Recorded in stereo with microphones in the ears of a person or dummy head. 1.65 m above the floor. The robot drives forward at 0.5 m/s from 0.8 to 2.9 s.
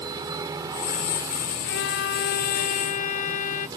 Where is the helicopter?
15° right (ahead or behind).